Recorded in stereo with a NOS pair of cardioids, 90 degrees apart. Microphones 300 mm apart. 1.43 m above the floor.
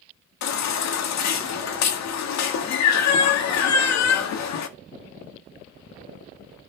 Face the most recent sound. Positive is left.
turn(degrees=65)